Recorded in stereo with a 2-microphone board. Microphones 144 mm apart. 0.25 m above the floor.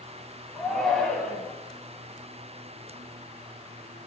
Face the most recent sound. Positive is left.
turn(degrees=5)  # may be behind; listen again after turning